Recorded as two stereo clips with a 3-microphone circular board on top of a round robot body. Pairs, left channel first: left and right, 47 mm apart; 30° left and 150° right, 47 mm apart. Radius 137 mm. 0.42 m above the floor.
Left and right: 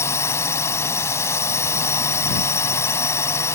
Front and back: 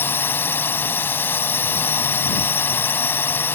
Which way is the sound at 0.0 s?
70° left.